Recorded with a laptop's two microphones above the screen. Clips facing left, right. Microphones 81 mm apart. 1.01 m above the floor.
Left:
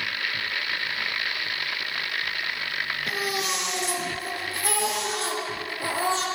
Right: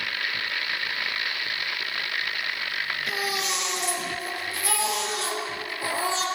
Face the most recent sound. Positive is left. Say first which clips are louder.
# left 1 dB
turn(degrees=50)  # may be behind; listen again after turning